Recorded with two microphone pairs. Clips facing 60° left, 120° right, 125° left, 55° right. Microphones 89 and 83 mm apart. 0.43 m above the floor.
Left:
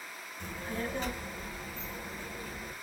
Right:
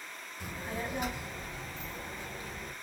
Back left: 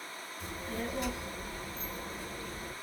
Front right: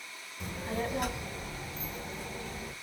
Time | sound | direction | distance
0.4 | a child speaking | 45° right | 1.3 m